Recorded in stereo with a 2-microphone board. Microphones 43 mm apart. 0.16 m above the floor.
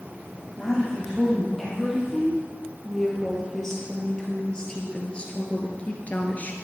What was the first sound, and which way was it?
A woman speaking, 5° right (ahead or behind).